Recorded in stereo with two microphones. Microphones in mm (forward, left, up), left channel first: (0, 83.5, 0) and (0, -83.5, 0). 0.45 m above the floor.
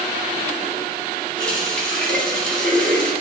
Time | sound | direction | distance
1.4 | a running tap | 10° left (ahead or behind) | 2 m